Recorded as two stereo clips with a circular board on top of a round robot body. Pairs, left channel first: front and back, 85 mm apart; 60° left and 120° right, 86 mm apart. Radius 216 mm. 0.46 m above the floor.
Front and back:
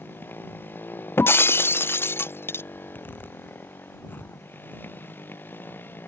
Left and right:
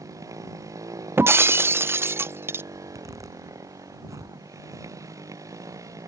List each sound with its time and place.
0.0 s a motorcycle: 65° right
1.2 s breaking glass: 60° right
2.7 s a zipper: 70° right